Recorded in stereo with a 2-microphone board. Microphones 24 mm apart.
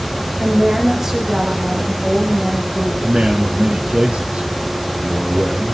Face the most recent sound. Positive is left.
turn(degrees=-45)  # may be behind; listen again after turning